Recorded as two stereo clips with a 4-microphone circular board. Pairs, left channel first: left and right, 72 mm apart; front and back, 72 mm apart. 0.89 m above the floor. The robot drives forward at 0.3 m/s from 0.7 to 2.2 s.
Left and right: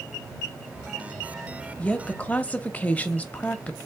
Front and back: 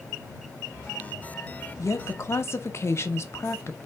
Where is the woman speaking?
25° left, 0.7 m; by 3.8 s 30° left, 0.6 m.